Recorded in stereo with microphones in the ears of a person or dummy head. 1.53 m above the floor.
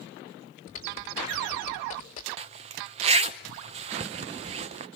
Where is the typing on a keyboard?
40° left (ahead or behind), 2 m.